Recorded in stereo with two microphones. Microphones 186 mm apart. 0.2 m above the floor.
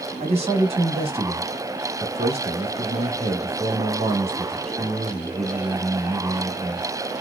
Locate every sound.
0.2 s a man speaking: 35° right (ahead or behind), 1.3 m